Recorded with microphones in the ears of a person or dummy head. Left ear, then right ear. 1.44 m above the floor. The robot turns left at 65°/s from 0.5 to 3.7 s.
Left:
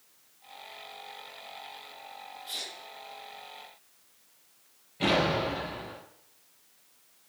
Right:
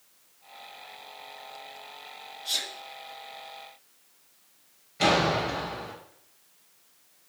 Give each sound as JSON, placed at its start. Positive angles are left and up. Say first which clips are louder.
{"t": 2.5, "sound": "a sneeze", "louder": "right 7 dB", "side_deg": -65, "distance_m": 3.5}
{"t": 5.0, "sound": "a door slam", "louder": "right 3 dB", "side_deg": -50, "distance_m": 6.5}